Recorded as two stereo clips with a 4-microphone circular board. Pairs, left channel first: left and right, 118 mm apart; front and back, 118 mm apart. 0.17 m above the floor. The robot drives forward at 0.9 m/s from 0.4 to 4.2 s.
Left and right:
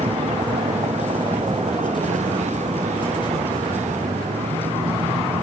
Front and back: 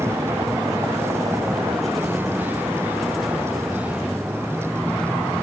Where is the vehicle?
110° right; by 5.4 s 95° right.